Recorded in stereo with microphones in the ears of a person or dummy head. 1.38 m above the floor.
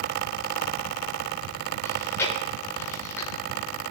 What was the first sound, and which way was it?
Chewing, 20° left (ahead or behind).